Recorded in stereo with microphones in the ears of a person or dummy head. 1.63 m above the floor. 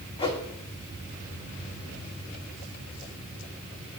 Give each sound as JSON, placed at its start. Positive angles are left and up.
{"t": 0.2, "sound": "a whoosh", "side_deg": 25, "distance_m": 0.9}